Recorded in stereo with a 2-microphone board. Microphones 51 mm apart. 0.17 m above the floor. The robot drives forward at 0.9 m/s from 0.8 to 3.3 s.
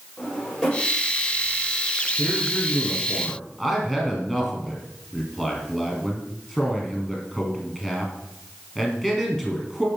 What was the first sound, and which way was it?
A drawer, 15° left (ahead or behind).